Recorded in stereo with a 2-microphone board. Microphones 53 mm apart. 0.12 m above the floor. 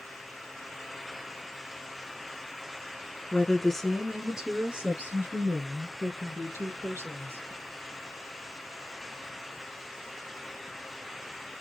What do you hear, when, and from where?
3.3 s a woman speaking: 15° left (ahead or behind), 1.1 m; by 7.5 s 55° right (ahead or behind), 2 m